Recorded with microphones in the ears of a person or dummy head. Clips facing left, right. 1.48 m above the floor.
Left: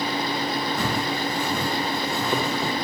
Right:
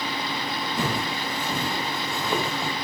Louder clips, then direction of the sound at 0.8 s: Left 2 dB; 5° right (ahead or behind).